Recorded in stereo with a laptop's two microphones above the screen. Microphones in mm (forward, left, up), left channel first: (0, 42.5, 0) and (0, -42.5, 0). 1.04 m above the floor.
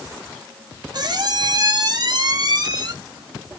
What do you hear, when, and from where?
0.9 s a squeak: 50° right (ahead or behind), 0.8 m